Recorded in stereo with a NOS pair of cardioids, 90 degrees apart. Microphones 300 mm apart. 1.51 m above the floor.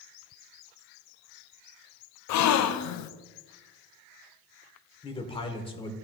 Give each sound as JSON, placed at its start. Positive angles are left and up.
{"t": 2.3, "sound": "a gasp", "azimuth_deg": 65, "distance_m": 0.5}
{"t": 5.0, "sound": "a man speaking", "azimuth_deg": 15, "distance_m": 1.2}